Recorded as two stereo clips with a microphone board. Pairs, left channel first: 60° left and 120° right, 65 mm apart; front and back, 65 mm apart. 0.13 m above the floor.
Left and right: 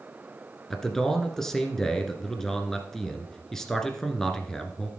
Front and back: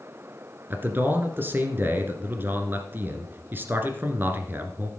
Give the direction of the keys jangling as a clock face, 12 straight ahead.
No keys jangling in this recording.